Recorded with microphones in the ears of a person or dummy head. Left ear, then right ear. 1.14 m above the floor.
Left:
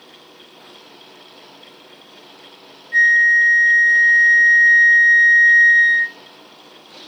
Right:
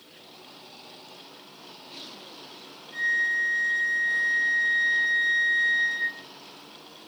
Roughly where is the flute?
Left.